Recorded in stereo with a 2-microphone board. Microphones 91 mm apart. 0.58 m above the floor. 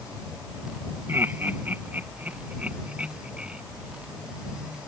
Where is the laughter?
25° right (ahead or behind); by 3.6 s 10° right (ahead or behind).